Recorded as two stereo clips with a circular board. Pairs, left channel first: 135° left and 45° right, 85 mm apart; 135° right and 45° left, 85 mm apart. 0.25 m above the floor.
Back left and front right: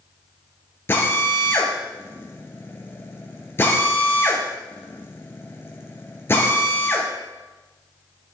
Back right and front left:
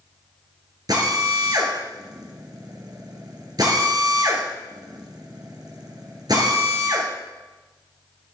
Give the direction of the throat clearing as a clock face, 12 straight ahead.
I don't hear throat clearing.